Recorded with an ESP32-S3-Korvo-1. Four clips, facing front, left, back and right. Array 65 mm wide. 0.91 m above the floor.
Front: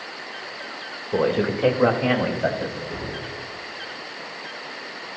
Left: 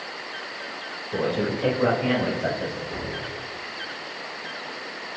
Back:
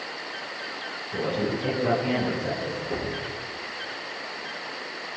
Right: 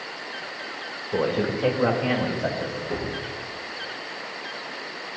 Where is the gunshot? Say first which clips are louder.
Right 3 dB, back 2 dB; 125° right, 8 m.